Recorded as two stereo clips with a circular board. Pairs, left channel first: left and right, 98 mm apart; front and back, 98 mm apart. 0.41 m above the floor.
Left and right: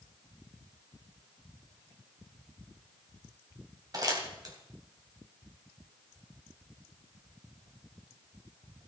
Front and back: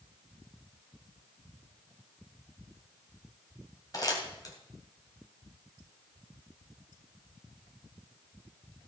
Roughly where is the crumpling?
Ahead right.